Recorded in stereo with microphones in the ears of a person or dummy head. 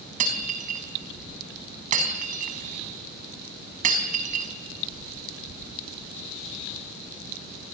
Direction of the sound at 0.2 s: 45° right (ahead or behind).